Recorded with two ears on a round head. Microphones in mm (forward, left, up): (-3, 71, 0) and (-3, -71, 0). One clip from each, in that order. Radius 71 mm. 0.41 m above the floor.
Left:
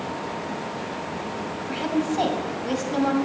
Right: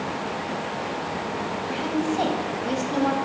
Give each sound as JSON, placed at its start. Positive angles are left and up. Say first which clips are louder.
{"t": 1.7, "sound": "a woman speaking", "louder": "left 2 dB", "side_deg": 5, "distance_m": 1.9}